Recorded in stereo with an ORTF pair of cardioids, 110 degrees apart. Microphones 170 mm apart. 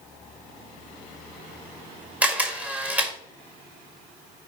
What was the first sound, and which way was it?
A camera shutter, 10° right.